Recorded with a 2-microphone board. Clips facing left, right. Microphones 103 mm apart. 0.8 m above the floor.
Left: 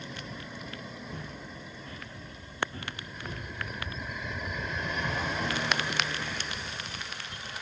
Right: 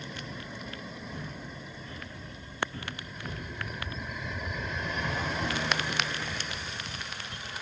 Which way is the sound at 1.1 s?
55° left (ahead or behind).